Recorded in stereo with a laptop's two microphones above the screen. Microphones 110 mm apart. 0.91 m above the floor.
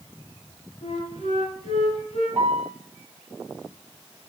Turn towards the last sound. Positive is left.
turn(degrees=-25)  # may be behind; listen again after turning